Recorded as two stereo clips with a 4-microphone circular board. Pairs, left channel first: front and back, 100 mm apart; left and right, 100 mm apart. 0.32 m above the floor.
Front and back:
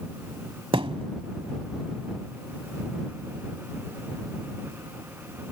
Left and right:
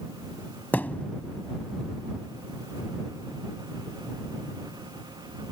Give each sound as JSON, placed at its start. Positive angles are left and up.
{"t": 0.7, "sound": "a thud", "azimuth_deg": 160}